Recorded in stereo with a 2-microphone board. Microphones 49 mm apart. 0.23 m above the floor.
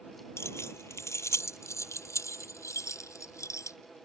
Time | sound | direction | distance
0.4 | keys jangling | 60° left (ahead or behind) | ?